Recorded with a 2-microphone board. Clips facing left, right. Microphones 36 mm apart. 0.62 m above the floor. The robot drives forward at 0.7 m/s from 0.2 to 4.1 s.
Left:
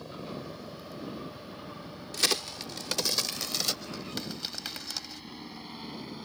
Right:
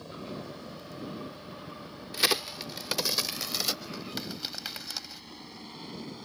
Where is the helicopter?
5° left (ahead or behind); by 6.3 s 10° left (ahead or behind).